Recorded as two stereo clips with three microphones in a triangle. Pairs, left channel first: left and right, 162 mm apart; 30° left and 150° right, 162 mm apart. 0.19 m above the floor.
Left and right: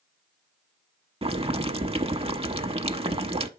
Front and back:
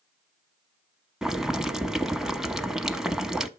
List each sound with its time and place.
1.2 s boiling: 65° right, 0.7 m